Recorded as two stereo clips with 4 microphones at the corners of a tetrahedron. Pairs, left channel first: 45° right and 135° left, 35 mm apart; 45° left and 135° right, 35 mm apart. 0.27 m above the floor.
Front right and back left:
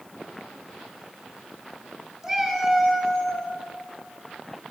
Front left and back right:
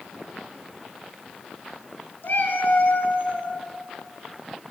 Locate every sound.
2.2 s a cat meowing: 55° left, 1.4 m; by 3.5 s 15° left, 1.3 m